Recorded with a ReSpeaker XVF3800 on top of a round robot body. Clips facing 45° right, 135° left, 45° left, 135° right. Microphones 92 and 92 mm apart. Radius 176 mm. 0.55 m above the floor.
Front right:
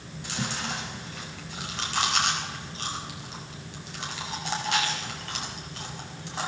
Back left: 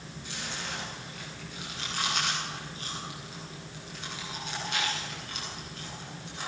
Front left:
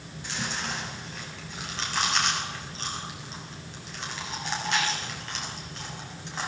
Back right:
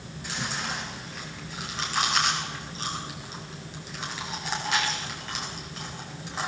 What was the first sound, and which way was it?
Chewing, 50° right.